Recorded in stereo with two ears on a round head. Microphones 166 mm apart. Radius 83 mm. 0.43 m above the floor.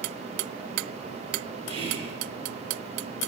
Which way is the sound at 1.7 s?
35° right (ahead or behind).